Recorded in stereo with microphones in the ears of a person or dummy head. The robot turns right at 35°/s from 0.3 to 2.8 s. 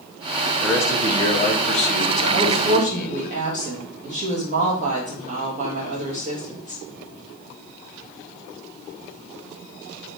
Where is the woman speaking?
20° right (ahead or behind), 1.3 m; by 6.8 s 40° right (ahead or behind), 1.3 m.